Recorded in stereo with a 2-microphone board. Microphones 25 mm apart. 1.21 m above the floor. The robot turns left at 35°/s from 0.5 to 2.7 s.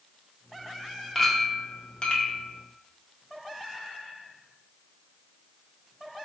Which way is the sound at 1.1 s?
170° left.